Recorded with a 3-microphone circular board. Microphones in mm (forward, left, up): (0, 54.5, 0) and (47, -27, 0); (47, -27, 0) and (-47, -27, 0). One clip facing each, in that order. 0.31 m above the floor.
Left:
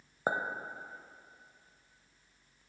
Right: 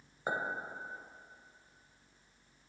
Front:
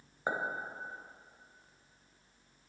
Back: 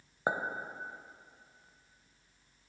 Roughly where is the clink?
Behind left.